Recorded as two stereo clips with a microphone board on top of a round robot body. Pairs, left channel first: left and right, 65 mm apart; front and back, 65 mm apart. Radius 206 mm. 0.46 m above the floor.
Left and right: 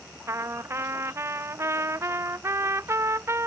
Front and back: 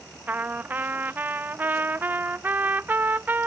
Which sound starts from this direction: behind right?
A trumpet, at 0.3 s.